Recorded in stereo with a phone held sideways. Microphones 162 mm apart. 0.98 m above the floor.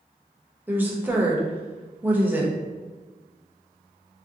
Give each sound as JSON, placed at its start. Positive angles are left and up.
{"t": 0.7, "sound": "a woman speaking", "side_deg": -10, "distance_m": 0.6}